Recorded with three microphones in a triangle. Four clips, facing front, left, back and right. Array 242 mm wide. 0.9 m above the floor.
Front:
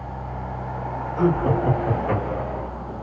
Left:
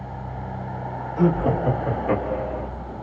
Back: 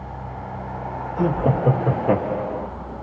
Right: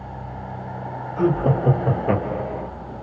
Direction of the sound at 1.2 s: 150° right.